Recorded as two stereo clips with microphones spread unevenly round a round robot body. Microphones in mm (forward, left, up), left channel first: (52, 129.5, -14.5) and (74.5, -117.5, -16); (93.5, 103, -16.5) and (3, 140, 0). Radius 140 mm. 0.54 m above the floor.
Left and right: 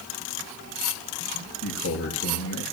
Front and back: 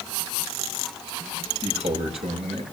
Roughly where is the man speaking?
Behind left.